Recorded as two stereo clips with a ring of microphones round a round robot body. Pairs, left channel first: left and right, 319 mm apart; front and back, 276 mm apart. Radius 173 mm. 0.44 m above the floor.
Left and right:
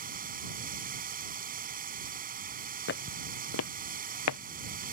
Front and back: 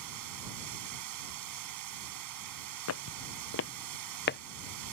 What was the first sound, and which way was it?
Running water, 155° right.